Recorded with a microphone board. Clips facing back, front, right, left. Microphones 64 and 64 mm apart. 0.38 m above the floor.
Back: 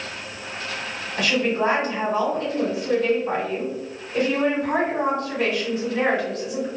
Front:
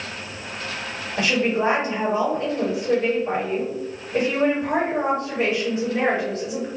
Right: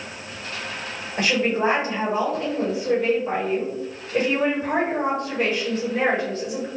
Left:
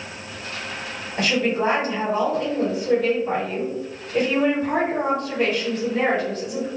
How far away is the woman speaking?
About 1.5 m.